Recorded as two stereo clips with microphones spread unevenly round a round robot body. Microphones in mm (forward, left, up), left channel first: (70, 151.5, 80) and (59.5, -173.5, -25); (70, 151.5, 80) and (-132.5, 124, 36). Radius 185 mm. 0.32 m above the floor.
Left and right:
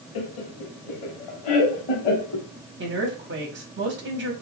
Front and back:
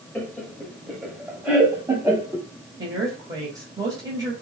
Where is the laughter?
100° left, 1.4 m; by 2.5 s 120° left, 2.5 m.